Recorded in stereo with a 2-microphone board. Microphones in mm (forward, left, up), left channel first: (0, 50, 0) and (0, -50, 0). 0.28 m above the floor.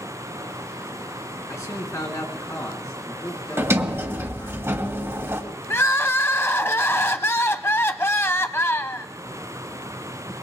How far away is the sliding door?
About 1.5 m.